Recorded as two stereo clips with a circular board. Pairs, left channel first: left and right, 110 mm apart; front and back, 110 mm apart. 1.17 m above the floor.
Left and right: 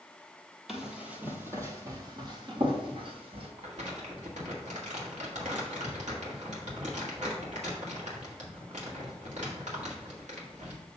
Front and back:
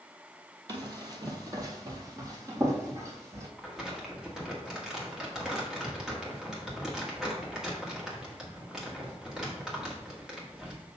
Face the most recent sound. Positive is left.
turn(degrees=-95)